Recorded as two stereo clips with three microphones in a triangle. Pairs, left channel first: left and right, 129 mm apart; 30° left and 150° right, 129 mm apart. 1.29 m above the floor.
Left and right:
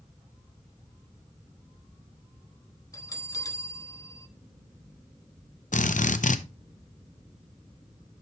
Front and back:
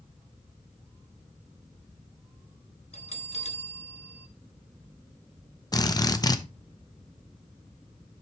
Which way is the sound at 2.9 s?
35° left.